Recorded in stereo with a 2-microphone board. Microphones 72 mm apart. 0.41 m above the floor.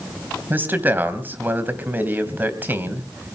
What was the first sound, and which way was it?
A man speaking, 25° right (ahead or behind).